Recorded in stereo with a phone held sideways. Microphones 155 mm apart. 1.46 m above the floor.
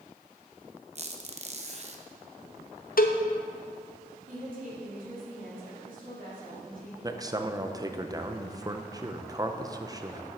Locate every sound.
0.9 s a squeak: 45° right (ahead or behind), 0.8 m
3.0 s a cowbell: 65° left (ahead or behind), 0.6 m
4.3 s a woman speaking: 60° right (ahead or behind), 3.5 m
7.0 s a man speaking: 25° right (ahead or behind), 0.7 m